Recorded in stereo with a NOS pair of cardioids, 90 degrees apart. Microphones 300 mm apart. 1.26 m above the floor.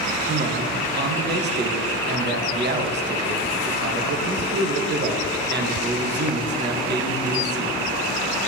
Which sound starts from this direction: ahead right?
A man speaking, at 0.3 s.